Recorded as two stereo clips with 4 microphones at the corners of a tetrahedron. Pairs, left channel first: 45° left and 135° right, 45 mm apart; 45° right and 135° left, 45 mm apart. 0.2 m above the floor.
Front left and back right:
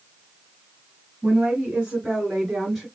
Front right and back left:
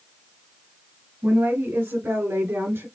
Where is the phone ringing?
No phone ringing in this recording.